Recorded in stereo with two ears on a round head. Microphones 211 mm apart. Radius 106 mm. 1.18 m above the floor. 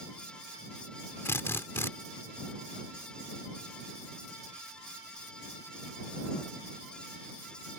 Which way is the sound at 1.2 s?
10° left (ahead or behind).